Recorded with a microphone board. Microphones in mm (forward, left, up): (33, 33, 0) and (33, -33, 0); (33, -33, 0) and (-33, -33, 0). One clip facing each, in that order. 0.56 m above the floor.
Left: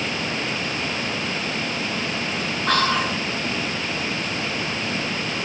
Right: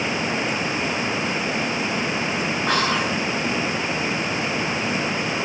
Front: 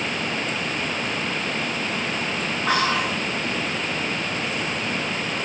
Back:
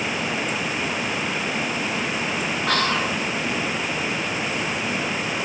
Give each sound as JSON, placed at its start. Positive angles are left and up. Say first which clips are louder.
{"t": 2.7, "sound": "whispering", "louder": "left 2 dB, front 1 dB", "azimuth_deg": -45, "distance_m": 1.3}